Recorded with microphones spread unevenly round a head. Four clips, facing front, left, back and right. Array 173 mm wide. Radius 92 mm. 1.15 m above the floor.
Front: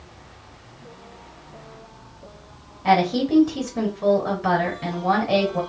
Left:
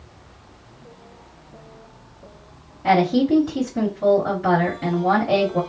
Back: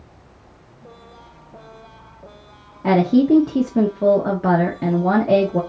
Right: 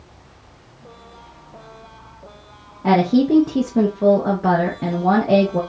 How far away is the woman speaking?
About 0.9 m.